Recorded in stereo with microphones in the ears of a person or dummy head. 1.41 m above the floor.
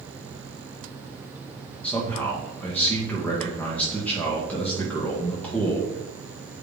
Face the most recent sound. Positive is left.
turn(degrees=10)  # may be behind; listen again after turning